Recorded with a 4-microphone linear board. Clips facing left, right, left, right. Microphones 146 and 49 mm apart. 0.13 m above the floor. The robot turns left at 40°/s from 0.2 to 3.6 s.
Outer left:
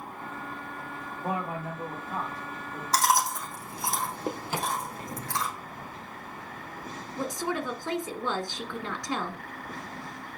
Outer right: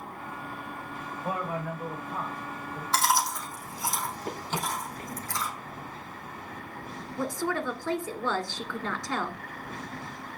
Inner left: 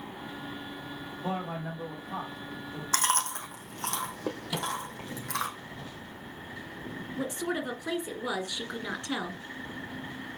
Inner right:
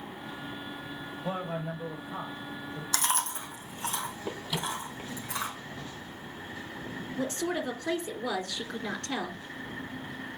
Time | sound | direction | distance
1.2 | a man speaking | 135° left | 5.5 m
2.9 | chewing | 40° left (ahead or behind) | 3 m
4.5 | a microwave | 10° left (ahead or behind) | 3 m
7.2 | a woman speaking | 20° left (ahead or behind) | 1.8 m